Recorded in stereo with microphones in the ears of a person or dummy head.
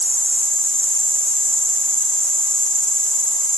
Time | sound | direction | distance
0.0 | an insect | 5° left (ahead or behind) | 0.8 m